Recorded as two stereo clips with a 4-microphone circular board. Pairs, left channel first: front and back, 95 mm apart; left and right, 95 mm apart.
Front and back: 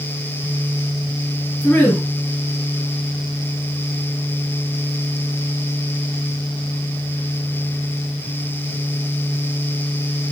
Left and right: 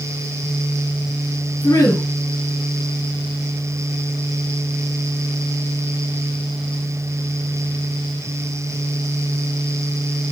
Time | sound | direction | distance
1.6 | a woman speaking | 55° left | 1.5 m